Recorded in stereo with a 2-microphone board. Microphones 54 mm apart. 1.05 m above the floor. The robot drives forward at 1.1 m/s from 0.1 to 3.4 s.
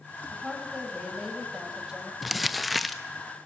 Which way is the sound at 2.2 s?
Centre (ahead or behind).